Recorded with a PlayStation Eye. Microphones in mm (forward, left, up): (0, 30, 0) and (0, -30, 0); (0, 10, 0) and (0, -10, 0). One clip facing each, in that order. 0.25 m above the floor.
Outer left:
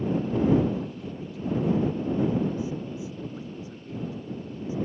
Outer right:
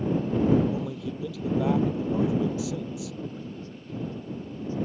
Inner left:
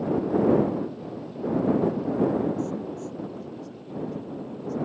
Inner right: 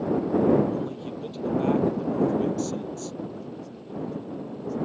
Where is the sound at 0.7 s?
80° right; by 3.2 s 60° right (ahead or behind).